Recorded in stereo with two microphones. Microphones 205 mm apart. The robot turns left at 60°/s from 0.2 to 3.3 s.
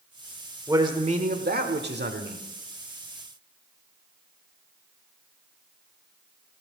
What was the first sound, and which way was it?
A man speaking, 15° right.